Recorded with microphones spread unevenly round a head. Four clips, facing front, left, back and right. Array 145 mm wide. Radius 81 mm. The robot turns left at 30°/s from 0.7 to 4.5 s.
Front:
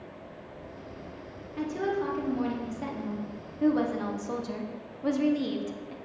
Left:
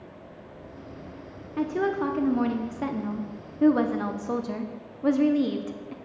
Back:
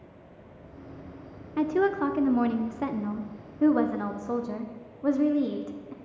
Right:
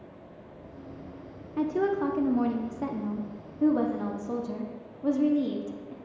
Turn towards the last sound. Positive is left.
turn(degrees=75)